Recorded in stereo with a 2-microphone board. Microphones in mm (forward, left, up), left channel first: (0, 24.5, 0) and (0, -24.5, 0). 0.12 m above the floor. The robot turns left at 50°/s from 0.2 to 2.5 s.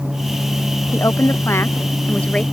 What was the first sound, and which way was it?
A woman speaking, 90° left.